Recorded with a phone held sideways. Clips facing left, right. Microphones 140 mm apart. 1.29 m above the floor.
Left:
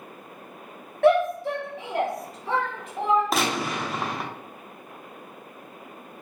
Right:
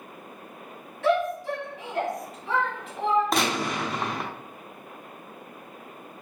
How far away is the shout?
About 0.8 m.